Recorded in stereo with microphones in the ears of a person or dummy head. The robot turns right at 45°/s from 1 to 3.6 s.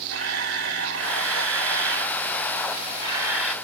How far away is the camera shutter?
About 1.0 m.